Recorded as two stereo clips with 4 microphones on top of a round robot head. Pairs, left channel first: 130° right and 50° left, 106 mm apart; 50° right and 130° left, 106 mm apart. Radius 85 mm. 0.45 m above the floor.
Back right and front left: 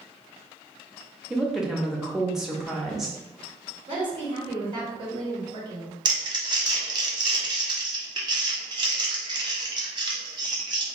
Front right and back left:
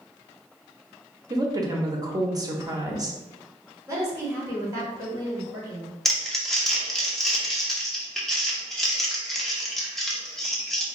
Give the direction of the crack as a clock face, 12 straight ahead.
No crack in this recording.